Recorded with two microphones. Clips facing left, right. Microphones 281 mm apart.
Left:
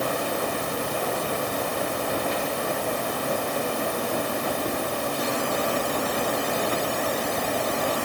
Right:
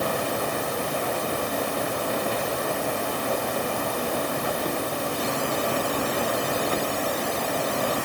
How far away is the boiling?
I don't hear boiling.